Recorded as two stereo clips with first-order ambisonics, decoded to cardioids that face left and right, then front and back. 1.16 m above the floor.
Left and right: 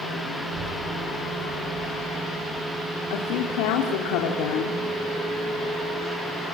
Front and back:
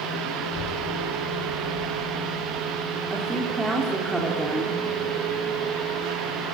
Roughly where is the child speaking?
Ahead right.